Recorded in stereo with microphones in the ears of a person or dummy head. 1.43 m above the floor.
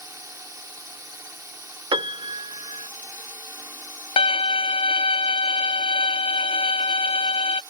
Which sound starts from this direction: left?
A violin, at 4.2 s.